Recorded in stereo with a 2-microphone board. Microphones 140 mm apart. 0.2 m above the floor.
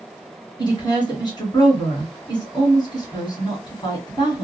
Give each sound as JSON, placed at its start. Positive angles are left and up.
{"t": 0.6, "sound": "a woman speaking", "side_deg": 30, "distance_m": 1.7}